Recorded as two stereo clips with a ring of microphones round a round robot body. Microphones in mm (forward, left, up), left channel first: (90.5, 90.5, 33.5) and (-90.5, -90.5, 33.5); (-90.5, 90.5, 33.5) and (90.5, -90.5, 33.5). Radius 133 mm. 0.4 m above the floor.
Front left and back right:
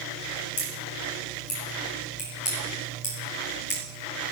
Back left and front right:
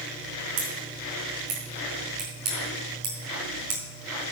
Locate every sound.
0.6 s scissors: 15° right, 4.5 m